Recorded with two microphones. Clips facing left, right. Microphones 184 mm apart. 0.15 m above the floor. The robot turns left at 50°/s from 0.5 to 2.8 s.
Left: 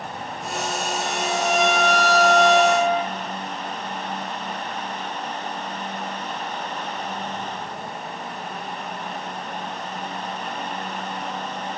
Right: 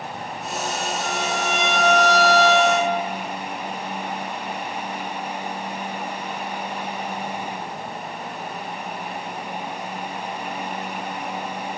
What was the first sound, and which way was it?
A violin, 145° left.